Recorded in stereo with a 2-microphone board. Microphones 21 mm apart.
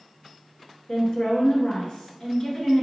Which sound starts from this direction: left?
A woman speaking, at 0.9 s.